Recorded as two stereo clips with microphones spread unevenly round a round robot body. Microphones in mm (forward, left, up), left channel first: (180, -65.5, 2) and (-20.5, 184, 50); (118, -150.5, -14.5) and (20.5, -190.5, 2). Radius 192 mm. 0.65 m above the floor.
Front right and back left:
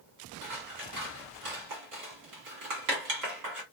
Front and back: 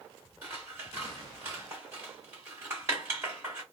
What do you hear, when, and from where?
0.4 s scissors: 140° left, 1.7 m